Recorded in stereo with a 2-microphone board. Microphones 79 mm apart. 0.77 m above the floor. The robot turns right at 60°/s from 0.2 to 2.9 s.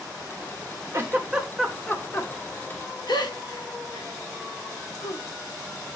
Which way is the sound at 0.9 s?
40° right (ahead or behind).